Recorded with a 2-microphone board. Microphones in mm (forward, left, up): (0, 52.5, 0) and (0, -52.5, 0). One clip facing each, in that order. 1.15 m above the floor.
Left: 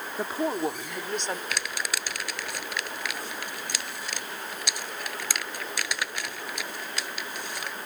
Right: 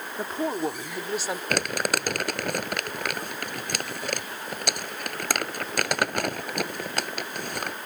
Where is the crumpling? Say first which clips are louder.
Right 7 dB; 55° right (ahead or behind).